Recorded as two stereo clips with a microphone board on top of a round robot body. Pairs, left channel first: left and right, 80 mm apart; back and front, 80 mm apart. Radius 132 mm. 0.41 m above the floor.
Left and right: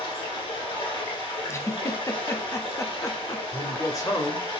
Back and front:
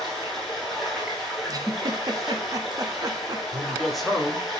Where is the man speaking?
90° left, 1.2 m.